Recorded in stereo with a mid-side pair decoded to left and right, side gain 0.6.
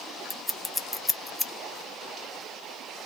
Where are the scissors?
15° left, 0.9 m.